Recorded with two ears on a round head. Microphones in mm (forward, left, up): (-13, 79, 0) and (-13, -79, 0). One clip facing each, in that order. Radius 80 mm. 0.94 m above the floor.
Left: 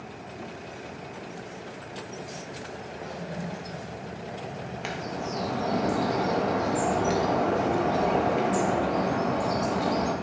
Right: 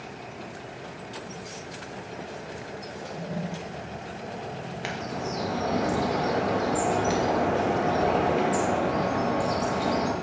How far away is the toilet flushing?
About 0.8 m.